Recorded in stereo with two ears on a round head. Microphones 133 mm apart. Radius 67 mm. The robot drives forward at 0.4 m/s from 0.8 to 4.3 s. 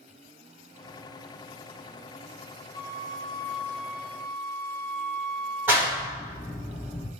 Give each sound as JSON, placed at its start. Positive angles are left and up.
{"t": 2.7, "sound": "a flute", "side_deg": 10, "distance_m": 1.5}
{"t": 5.7, "sound": "a clap", "side_deg": -15, "distance_m": 1.3}